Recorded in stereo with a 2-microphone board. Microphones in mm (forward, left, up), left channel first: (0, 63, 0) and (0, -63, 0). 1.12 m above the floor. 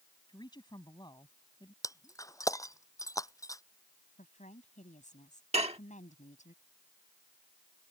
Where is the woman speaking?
75° left (ahead or behind).